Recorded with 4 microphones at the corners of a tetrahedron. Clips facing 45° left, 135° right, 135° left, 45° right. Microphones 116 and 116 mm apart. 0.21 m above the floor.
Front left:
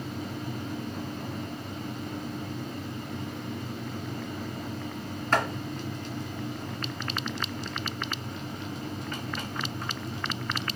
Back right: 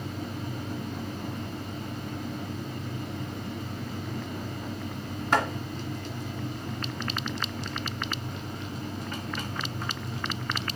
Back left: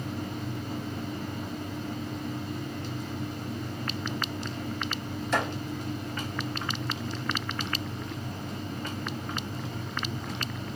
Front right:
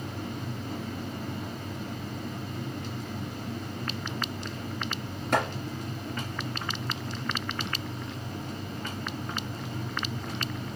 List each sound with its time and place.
5.3 s chopping: 55° right, 1.8 m